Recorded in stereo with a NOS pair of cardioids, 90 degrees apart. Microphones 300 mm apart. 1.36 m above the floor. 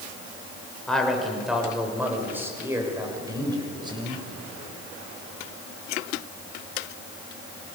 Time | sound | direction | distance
0.9 | a man speaking | straight ahead | 5 m